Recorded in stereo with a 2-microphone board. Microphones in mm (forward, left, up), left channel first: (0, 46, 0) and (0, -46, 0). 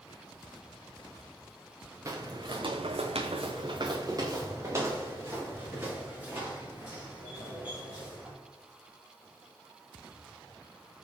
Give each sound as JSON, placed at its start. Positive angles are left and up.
{"t": 2.0, "sound": "footsteps", "side_deg": -35, "distance_m": 0.8}